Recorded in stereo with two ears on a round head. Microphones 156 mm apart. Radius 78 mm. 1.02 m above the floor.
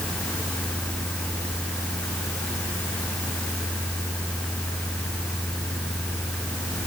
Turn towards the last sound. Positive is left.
No sound to turn to.